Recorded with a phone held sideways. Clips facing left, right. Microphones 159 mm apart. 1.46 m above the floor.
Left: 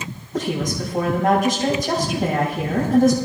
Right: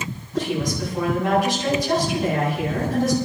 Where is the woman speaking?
50° left (ahead or behind), 7.5 m.